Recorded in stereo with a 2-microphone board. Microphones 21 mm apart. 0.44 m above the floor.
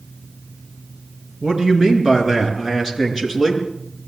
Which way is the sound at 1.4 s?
20° right (ahead or behind).